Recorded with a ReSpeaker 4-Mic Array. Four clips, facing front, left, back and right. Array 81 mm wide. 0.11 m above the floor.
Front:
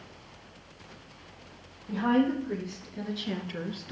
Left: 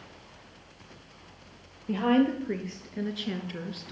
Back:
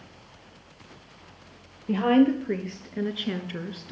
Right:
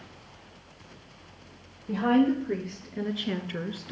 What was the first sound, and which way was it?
A woman speaking, 165° left.